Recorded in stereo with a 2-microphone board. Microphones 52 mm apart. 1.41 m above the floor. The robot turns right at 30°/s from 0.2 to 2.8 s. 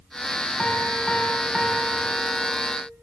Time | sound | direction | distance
0.6 | a piano | 155° left | 2.5 m